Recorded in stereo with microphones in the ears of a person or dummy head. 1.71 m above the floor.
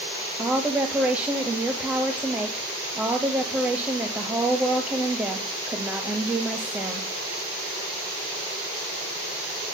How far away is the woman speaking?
About 0.9 m.